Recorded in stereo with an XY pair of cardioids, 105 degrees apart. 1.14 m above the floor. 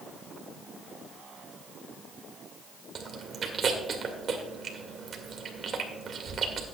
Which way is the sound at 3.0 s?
50° right.